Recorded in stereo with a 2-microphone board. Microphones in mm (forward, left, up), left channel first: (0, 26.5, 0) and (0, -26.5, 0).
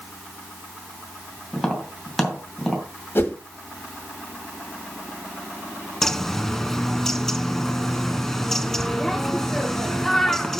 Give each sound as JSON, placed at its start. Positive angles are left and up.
{"t": 1.5, "sound": "tapping", "side_deg": 5, "distance_m": 2.5}
{"t": 3.1, "sound": "a whoosh", "side_deg": 40, "distance_m": 1.4}
{"t": 6.0, "sound": "a bird", "side_deg": 10, "distance_m": 0.6}